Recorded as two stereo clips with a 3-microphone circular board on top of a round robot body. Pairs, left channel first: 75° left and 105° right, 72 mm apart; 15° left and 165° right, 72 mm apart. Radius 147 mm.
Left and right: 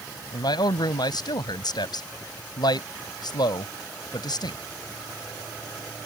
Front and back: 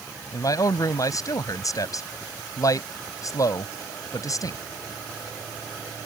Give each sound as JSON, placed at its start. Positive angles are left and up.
{"t": 0.3, "sound": "a man speaking", "azimuth_deg": 55}